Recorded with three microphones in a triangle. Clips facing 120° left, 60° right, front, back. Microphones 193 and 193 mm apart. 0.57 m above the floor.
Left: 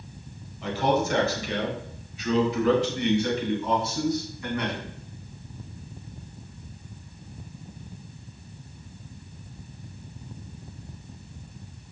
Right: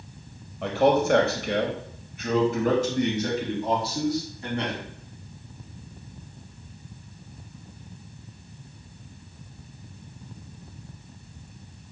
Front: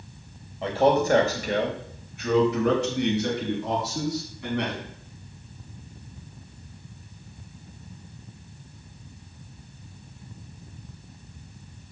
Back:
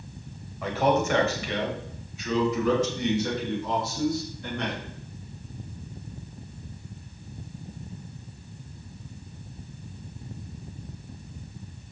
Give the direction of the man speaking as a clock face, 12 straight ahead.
2 o'clock.